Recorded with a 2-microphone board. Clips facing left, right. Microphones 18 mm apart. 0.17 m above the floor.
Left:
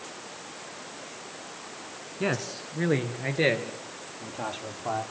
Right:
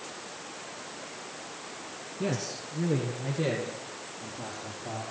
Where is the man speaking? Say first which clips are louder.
Left 3 dB; 40° left (ahead or behind), 1.8 m; by 5.0 s 75° left (ahead or behind), 4.5 m.